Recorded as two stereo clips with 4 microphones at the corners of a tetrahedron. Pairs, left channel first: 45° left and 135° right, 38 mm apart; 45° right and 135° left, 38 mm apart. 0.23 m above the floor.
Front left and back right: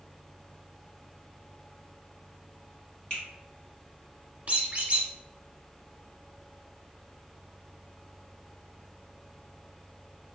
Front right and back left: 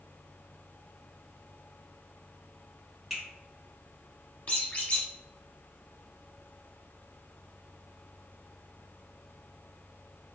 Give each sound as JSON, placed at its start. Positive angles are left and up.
{"t": 3.1, "sound": "a finger snap", "azimuth_deg": 55, "distance_m": 1.6}
{"t": 4.5, "sound": "a squeak", "azimuth_deg": -90, "distance_m": 0.8}